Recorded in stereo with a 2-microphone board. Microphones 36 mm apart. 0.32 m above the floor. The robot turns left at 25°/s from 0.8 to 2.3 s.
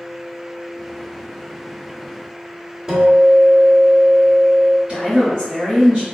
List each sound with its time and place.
2.9 s a guitar: 20° right (ahead or behind), 0.8 m
4.9 s a woman speaking: 25° right (ahead or behind), 1.2 m